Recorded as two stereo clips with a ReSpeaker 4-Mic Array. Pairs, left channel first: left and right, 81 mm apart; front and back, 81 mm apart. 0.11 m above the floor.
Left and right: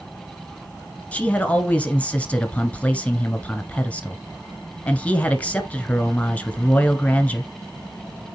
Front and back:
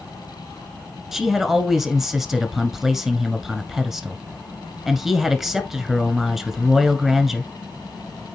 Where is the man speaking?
105° left, 1.1 m.